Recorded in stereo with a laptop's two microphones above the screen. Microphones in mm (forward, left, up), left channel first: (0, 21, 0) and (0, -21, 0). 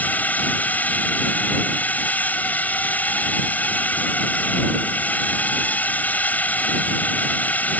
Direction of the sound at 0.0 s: 40° left (ahead or behind).